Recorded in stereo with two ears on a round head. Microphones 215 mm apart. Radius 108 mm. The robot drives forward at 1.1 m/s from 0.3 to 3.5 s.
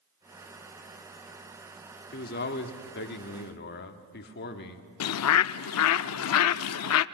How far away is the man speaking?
About 2.0 m.